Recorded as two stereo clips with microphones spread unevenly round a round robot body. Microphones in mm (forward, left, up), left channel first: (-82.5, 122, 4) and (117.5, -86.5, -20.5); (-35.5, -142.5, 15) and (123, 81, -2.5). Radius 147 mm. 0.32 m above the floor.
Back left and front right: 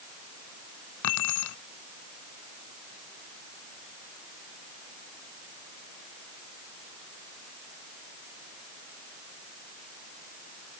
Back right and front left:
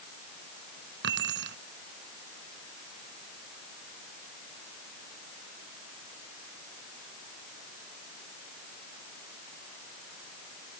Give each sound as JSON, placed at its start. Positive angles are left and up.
{"t": 1.0, "sound": "keys jangling", "azimuth_deg": 110}